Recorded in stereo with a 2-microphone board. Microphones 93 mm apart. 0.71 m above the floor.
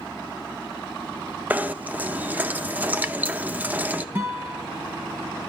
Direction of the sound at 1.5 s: 20° right (ahead or behind).